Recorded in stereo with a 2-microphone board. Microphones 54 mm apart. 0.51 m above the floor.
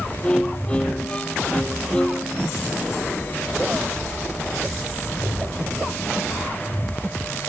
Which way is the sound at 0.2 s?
20° left (ahead or behind).